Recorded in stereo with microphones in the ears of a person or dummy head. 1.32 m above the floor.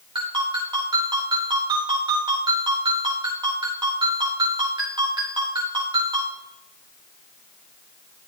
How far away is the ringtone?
About 4 m.